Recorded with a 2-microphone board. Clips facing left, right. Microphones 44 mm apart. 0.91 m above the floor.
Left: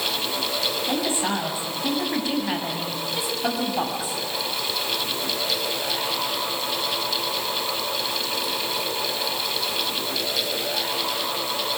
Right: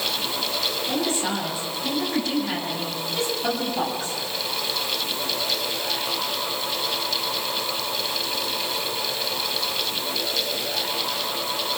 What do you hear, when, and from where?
0.9 s a woman speaking: 25° left (ahead or behind), 7.5 m; by 4.2 s 10° left (ahead or behind), 6.5 m